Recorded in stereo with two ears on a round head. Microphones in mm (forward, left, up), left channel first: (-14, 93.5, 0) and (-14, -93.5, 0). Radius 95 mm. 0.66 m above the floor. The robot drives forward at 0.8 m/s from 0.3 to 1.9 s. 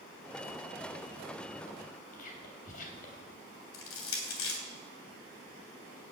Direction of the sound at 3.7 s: 70° left (ahead or behind).